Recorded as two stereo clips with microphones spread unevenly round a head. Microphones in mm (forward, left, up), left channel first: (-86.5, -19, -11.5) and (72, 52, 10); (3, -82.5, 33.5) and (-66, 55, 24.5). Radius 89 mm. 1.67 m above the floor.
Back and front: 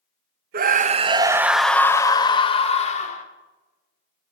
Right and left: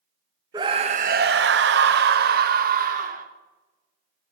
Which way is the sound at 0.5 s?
45° left.